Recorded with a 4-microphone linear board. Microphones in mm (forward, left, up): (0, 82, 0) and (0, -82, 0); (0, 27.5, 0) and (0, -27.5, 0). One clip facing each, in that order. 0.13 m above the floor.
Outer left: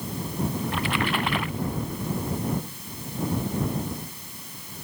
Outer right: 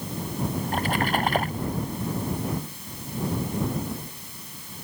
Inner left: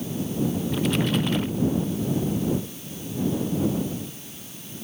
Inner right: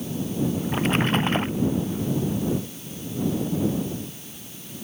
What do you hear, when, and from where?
0.6 s a splash: 40° right (ahead or behind)